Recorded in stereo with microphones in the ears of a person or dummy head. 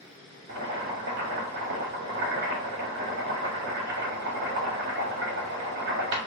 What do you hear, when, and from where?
0.5 s boiling: 60° right (ahead or behind), 1.4 m